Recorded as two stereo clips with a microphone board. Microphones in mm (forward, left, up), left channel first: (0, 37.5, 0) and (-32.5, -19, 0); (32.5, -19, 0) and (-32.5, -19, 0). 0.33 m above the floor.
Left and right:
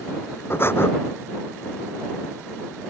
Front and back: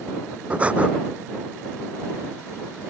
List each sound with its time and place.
0.5 s breathing: 110° left